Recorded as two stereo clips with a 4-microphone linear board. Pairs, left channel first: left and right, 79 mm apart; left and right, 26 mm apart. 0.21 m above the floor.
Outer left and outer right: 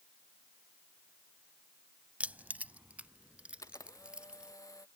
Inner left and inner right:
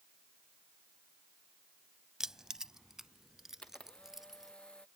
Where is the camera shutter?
45° left (ahead or behind).